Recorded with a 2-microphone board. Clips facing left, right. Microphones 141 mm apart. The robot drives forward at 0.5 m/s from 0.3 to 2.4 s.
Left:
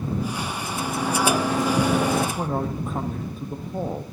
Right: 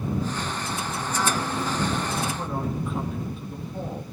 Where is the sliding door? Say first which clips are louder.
Left 7 dB; 80° left, 3 m.